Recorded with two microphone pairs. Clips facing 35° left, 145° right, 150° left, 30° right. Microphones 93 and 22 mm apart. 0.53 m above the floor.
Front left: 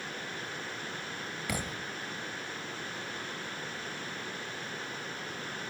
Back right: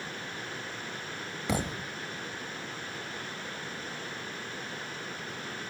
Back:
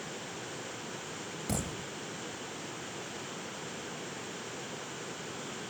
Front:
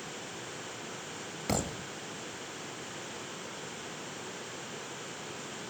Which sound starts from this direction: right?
A thud, at 1.5 s.